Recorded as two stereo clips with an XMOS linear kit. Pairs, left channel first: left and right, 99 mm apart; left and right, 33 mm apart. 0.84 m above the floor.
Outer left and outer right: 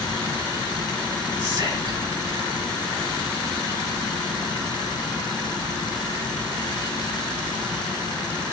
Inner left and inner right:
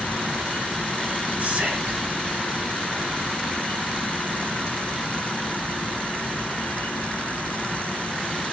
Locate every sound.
1.4 s whispering: 50° right (ahead or behind), 6 m